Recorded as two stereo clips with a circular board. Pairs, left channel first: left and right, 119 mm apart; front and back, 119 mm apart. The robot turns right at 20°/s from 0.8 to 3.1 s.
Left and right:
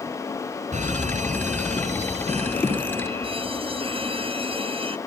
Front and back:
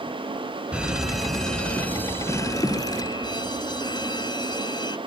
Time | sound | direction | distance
0.7 | a fire alarm | 95° right | ?